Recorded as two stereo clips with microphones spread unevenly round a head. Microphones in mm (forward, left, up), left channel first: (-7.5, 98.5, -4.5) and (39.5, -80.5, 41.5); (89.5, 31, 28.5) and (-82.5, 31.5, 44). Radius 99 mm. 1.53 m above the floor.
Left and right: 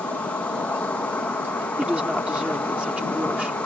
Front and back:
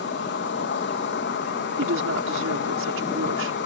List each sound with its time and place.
0.0 s an insect: 20° left
1.8 s a woman speaking: 160° right